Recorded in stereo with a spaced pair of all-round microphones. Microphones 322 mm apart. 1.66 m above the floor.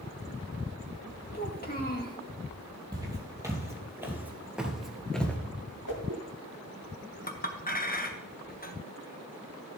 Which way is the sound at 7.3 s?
25° left (ahead or behind).